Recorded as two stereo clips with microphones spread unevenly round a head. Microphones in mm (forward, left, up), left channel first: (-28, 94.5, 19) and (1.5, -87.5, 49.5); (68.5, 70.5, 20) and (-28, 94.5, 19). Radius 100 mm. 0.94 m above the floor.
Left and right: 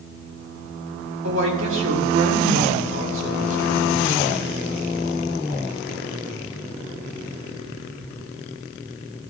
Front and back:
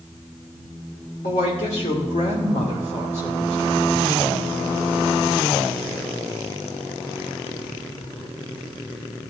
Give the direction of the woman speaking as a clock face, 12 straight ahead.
2 o'clock.